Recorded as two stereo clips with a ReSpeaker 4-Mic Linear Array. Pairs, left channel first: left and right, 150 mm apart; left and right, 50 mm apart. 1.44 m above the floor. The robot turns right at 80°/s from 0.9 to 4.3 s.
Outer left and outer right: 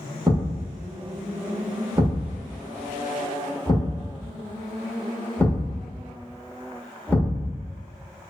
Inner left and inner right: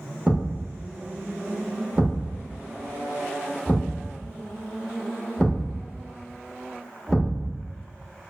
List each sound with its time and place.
0.3 s a thud: 25° right (ahead or behind), 0.9 m; by 7.6 s 15° left (ahead or behind), 0.9 m